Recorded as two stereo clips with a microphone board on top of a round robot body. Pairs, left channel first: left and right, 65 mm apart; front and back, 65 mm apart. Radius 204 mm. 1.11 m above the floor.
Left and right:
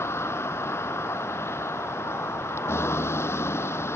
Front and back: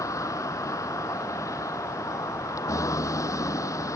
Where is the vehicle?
40° left.